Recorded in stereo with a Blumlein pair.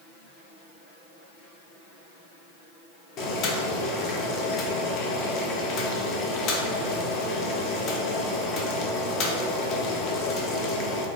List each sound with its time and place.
3.2 s boiling: 35° left, 0.5 m